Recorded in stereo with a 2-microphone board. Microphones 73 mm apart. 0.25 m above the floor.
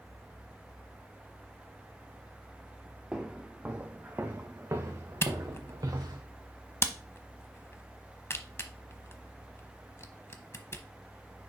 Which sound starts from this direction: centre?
Footsteps, at 3.1 s.